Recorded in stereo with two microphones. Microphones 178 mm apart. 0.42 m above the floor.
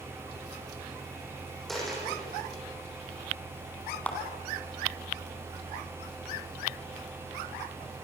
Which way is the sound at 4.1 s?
10° left (ahead or behind).